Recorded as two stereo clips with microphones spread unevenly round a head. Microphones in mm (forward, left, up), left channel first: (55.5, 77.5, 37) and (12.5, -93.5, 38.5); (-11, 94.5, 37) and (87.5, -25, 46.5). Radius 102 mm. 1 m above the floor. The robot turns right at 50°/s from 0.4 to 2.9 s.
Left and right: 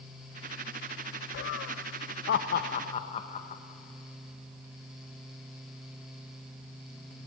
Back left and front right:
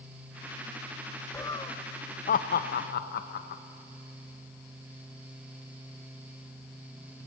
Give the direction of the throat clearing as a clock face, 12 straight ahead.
No throat clearing in this recording.